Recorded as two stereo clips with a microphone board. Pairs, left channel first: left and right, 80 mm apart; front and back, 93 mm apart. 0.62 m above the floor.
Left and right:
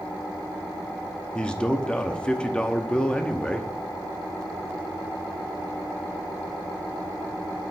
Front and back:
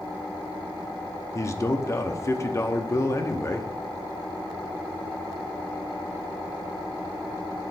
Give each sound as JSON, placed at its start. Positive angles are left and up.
{"t": 1.4, "sound": "a man speaking", "azimuth_deg": 20, "distance_m": 0.7}